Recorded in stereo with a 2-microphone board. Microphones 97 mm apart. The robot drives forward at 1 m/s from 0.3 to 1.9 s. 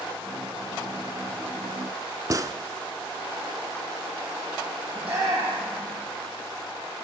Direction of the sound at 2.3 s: 35° right (ahead or behind).